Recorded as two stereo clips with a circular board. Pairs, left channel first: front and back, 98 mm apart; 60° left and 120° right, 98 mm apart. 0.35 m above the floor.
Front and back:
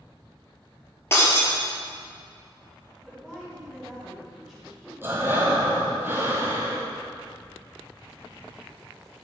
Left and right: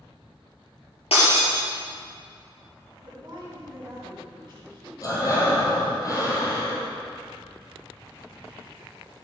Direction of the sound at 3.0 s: 95° right.